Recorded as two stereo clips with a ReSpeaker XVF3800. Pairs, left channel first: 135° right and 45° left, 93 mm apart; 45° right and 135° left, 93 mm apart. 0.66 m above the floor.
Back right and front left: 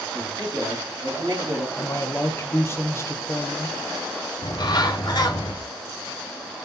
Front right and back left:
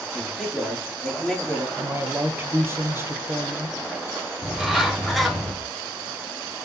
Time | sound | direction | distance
0.1 | a man speaking | 40° left | 1.8 m
1.8 | a man speaking | straight behind | 0.6 m
4.4 | a bird | 135° right | 0.6 m